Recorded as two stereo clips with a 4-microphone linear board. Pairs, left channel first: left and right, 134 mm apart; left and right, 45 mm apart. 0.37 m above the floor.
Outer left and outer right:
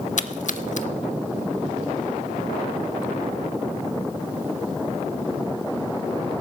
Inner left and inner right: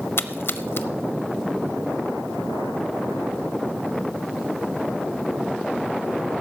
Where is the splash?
65° left (ahead or behind), 0.7 m.